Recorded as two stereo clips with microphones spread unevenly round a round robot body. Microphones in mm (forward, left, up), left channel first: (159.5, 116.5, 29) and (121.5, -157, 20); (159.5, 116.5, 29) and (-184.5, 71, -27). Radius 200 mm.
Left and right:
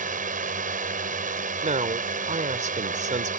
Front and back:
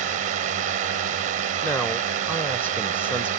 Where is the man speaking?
90° right.